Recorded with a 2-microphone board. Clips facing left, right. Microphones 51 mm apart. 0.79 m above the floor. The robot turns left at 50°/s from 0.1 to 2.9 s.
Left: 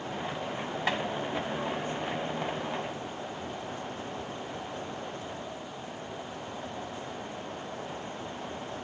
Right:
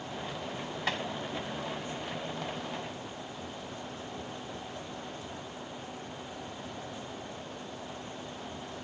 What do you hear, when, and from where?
0.9 s tapping: 15° left (ahead or behind); by 1.0 s 20° left (ahead or behind)